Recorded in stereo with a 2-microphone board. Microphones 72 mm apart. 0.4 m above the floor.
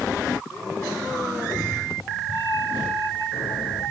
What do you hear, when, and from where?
1.3 s a cat meowing: 65° left (ahead or behind), 4 m; by 3.9 s 85° left, 5 m